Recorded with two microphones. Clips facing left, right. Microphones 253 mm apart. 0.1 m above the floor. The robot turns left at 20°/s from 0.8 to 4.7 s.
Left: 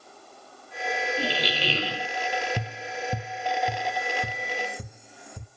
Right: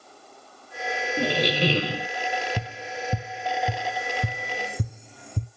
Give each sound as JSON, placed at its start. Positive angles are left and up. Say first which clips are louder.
{"t": 1.2, "sound": "a squeak", "louder": "right 6 dB", "side_deg": -55, "distance_m": 1.1}
{"t": 2.6, "sound": "tapping", "louder": "even", "side_deg": -5, "distance_m": 1.4}